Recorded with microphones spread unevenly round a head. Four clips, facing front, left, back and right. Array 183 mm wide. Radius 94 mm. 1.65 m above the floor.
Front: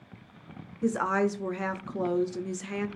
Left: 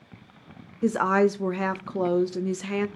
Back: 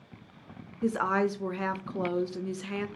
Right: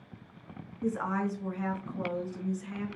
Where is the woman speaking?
85° left, 0.7 m.